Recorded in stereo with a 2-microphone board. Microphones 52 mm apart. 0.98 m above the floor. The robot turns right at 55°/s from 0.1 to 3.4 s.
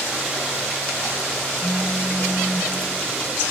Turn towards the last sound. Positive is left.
turn(degrees=-35)